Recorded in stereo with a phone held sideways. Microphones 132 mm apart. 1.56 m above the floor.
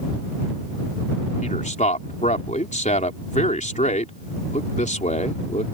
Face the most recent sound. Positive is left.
turn(degrees=70)  # may be behind; listen again after turning